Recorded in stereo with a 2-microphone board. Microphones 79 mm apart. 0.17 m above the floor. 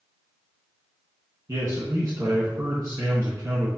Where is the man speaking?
40° right (ahead or behind), 1.5 m.